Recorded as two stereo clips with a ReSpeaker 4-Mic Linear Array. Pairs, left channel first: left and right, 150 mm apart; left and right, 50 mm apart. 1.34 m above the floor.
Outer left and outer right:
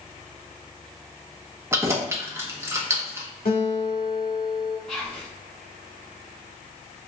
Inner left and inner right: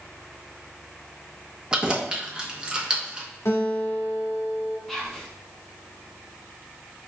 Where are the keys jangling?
20° right (ahead or behind), 0.7 m.